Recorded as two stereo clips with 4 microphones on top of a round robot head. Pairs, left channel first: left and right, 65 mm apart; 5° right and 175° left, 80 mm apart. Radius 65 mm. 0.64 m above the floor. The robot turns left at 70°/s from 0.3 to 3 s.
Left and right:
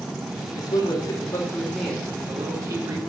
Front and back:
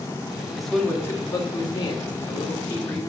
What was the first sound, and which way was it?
A man speaking, 90° left.